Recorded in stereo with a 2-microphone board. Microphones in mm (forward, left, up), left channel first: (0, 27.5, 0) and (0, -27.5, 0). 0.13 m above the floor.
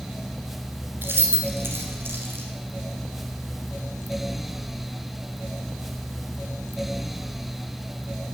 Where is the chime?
No chime in this recording.